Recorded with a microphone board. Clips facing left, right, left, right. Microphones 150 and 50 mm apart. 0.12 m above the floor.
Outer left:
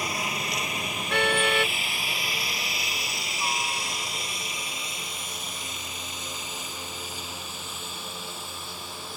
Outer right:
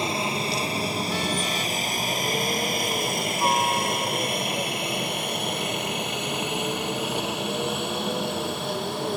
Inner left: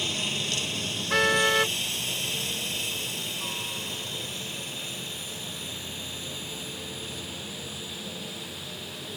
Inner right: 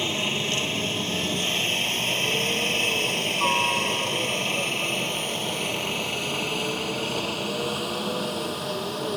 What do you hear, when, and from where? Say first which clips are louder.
0.0 s a helicopter: outer right 5 dB, inner right 4 dB; 30° right (ahead or behind); by 9.2 s 65° right (ahead or behind)
1.1 s a car horn: outer left 2 dB, inner left 5 dB; 70° left (ahead or behind)